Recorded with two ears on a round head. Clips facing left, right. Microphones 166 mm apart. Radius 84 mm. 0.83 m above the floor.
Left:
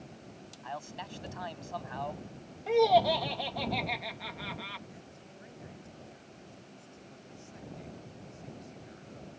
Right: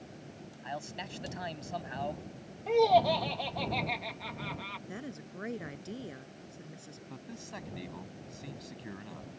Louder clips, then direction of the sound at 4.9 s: Right 8 dB; 85° right.